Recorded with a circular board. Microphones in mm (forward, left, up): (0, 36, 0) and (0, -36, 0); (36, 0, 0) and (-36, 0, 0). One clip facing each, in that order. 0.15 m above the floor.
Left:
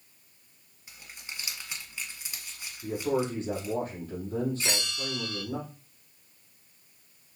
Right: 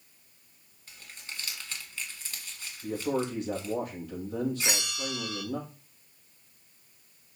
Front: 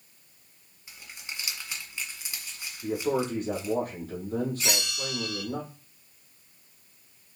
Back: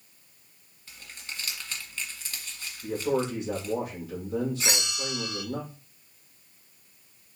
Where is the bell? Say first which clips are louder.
Even, even; 145° right, 1.1 m.